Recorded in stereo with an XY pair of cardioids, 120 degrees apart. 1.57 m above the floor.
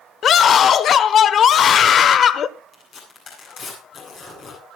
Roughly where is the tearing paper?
Ahead left.